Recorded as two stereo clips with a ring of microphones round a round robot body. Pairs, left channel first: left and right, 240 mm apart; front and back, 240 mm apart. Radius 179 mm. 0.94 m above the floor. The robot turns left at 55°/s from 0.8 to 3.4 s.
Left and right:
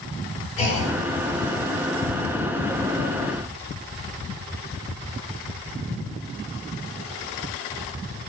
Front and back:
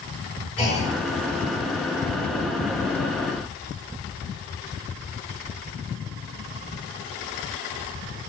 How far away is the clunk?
About 0.8 m.